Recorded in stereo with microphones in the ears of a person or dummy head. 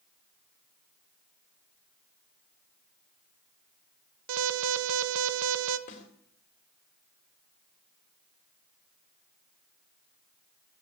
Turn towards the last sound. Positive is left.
turn(degrees=50)  # may be behind; listen again after turning